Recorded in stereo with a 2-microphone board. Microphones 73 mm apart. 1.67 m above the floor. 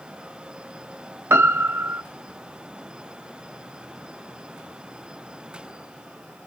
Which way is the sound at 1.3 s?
35° right (ahead or behind).